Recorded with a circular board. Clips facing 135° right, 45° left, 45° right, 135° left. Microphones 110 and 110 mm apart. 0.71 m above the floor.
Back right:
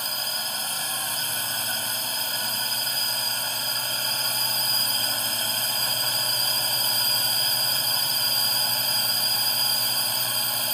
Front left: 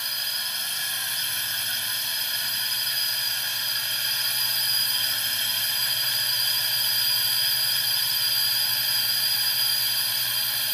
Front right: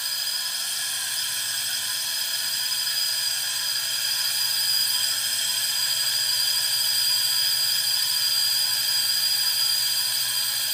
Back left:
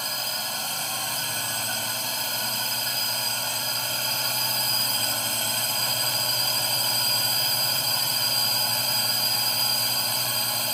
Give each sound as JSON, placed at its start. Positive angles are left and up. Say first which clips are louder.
{"t": 0.0, "sound": "a drone", "louder": "back right 5 dB, back left 7 dB", "azimuth_deg": 175}